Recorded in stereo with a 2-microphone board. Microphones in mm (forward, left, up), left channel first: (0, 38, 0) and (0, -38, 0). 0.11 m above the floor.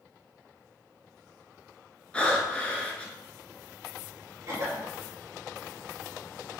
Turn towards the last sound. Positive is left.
turn(degrees=-35)  # may be behind; listen again after turning